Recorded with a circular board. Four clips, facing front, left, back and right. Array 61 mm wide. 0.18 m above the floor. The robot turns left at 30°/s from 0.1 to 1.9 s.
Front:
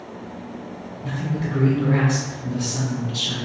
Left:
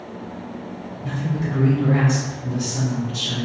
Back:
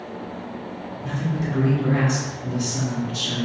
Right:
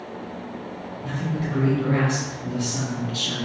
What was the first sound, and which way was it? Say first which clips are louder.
A man speaking: left 2 dB, even; 20° right.